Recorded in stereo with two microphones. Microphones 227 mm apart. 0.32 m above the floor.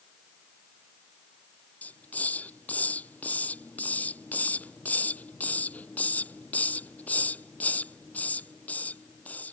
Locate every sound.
1.8 s a hiss: 5° left (ahead or behind)